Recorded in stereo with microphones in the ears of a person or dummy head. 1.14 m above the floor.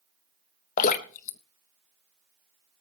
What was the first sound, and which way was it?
Dripping, 35° left (ahead or behind).